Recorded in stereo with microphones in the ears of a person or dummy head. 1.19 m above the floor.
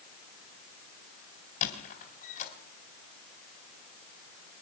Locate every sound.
1.6 s a squeak: 40° left (ahead or behind), 2.5 m